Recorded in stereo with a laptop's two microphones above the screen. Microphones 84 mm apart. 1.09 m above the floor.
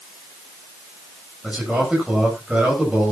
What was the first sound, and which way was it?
A man speaking, 10° right (ahead or behind).